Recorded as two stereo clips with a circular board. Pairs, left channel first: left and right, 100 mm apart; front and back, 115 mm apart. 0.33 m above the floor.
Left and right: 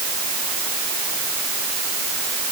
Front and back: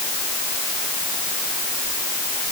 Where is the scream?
I don't hear a scream.